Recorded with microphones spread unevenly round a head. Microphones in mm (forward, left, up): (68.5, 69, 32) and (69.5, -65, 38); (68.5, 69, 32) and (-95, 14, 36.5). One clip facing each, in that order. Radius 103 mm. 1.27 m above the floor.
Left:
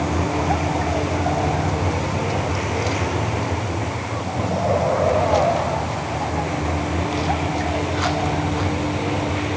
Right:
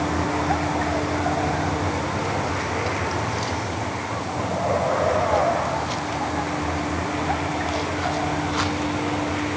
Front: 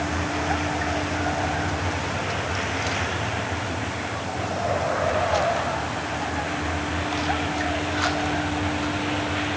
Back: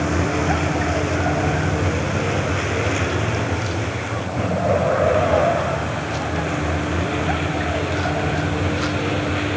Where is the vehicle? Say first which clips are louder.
Left 2 dB, back 6 dB; 170° left; by 9.6 s 165° left.